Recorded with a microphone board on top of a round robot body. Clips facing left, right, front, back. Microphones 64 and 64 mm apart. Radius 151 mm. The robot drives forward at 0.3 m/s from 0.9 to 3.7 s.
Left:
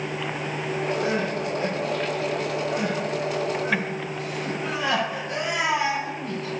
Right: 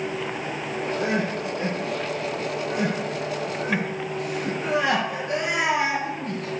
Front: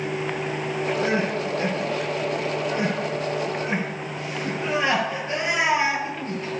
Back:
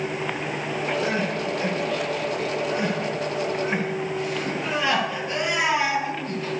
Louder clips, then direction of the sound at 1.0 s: Even, front 2 dB; 55° right.